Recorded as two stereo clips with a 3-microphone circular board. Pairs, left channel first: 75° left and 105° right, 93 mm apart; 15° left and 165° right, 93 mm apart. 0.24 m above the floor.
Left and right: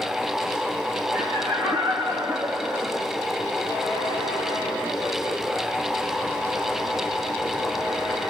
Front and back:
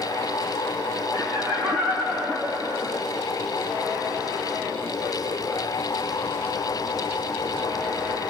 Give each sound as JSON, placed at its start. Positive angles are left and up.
{"t": 1.1, "sound": "laughter", "azimuth_deg": -65, "distance_m": 2.5}